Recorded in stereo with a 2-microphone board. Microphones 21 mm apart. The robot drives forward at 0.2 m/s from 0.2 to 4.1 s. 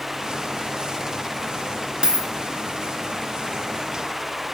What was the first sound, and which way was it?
A dropped coin, 50° right (ahead or behind).